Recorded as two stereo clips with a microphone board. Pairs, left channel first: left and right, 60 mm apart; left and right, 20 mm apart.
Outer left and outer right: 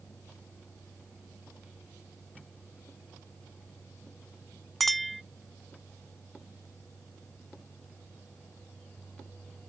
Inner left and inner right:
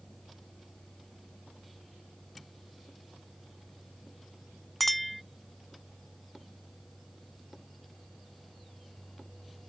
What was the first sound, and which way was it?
A clink, centre (ahead or behind).